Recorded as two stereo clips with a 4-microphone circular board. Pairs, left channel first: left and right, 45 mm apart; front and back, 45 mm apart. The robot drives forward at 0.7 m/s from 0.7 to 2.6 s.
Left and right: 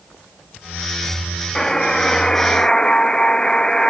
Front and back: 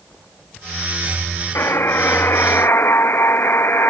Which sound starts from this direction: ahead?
A buzzer, at 1.6 s.